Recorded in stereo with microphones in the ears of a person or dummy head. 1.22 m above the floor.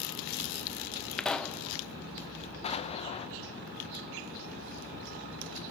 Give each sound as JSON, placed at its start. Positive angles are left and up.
{"t": 1.2, "sound": "a pop", "side_deg": 5, "distance_m": 0.7}
{"t": 2.6, "sound": "an explosion", "side_deg": 30, "distance_m": 0.8}